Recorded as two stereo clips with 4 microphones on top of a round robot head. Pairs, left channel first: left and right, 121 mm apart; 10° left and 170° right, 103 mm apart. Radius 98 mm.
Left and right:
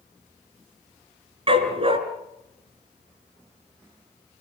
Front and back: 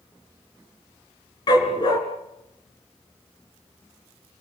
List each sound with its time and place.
1.5 s a dog barking: 50° right, 3.5 m